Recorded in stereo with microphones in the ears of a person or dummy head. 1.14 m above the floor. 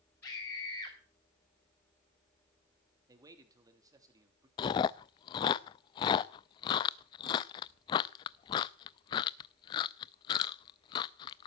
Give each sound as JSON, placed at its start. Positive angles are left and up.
{"t": 0.2, "sound": "a scream", "side_deg": 10, "distance_m": 5.5}
{"t": 3.1, "sound": "a man speaking", "side_deg": -15, "distance_m": 2.0}
{"t": 4.6, "sound": "chewing", "side_deg": 20, "distance_m": 0.6}